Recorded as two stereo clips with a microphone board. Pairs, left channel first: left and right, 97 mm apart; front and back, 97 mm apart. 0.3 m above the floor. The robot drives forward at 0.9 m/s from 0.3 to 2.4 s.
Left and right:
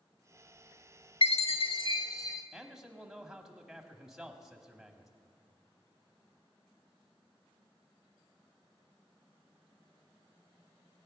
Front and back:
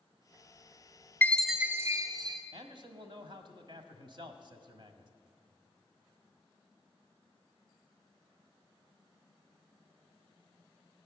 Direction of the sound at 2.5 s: 175° right.